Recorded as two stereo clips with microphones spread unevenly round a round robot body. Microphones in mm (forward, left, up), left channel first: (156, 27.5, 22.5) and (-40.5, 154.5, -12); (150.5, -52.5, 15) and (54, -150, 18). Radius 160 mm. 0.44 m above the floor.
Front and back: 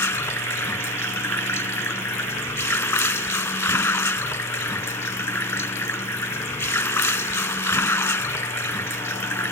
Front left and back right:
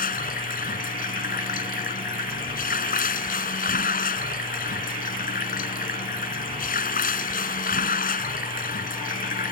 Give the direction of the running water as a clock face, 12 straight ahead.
10 o'clock.